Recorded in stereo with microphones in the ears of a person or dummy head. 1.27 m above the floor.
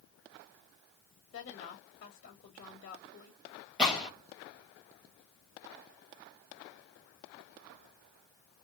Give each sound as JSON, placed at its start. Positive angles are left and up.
{"t": 1.3, "sound": "a woman speaking", "side_deg": 50, "distance_m": 1.4}
{"t": 3.8, "sound": "a gunshot", "side_deg": -5, "distance_m": 1.4}